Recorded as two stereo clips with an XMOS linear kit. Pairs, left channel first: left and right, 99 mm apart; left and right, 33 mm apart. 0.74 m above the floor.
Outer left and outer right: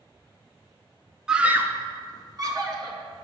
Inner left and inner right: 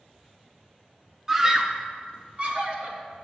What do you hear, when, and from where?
1.3 s a scream: 5° right (ahead or behind), 0.5 m; by 3.0 s 45° right (ahead or behind), 1.6 m